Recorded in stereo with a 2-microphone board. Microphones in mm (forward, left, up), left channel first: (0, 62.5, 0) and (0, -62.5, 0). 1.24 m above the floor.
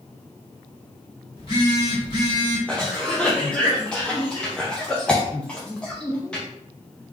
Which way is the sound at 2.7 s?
10° left (ahead or behind).